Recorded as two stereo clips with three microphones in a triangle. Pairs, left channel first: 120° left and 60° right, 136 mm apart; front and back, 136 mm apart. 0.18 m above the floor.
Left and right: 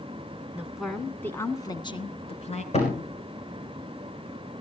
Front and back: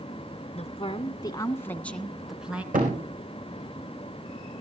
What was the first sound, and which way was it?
A woman speaking, 15° left.